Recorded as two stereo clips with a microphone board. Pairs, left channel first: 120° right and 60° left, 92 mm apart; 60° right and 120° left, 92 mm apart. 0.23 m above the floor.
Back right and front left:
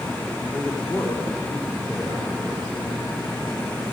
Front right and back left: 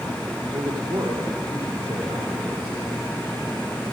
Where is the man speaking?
175° right, 7.5 m.